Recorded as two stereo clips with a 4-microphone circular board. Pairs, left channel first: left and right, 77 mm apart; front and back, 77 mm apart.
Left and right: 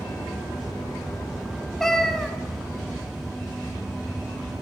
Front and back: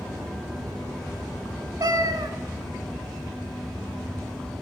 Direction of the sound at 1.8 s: 175° left.